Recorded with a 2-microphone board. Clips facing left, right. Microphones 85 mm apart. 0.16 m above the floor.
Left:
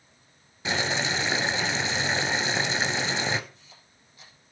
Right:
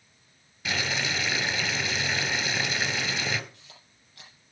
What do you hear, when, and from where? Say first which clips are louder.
0.7 s boiling: left 3 dB; 30° left (ahead or behind), 1.0 m
3.5 s a camera shutter: even; 75° right (ahead or behind), 5.5 m